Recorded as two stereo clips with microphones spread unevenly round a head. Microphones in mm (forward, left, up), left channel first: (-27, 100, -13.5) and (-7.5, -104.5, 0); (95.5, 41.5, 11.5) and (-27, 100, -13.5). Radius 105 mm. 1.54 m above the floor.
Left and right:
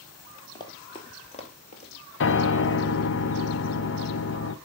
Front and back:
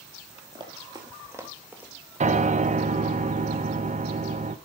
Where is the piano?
125° left, 0.9 m.